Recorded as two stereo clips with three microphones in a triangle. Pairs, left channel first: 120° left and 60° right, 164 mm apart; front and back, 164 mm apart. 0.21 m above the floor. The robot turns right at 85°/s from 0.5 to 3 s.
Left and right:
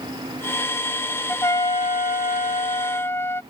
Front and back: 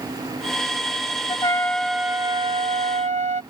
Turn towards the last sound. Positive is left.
turn(degrees=-175)